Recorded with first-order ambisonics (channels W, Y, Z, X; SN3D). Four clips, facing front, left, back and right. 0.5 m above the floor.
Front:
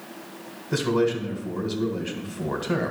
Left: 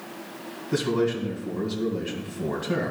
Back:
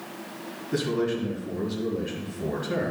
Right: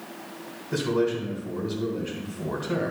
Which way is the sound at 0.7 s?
5° right.